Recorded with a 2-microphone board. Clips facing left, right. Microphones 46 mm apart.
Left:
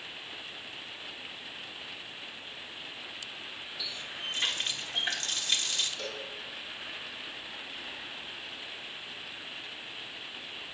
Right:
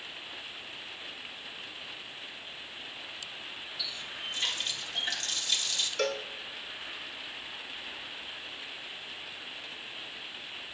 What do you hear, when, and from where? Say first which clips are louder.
3.8 s a running tap: left 1 dB; 40° left (ahead or behind), 1.2 m
6.0 s a cowbell: right 8 dB; 65° right (ahead or behind), 1.0 m